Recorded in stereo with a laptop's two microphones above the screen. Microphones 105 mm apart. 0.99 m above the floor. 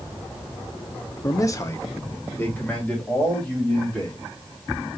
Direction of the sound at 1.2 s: 30° left (ahead or behind).